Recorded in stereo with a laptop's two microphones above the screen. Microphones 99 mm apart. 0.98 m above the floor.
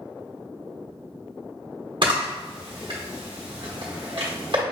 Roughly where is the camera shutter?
Right.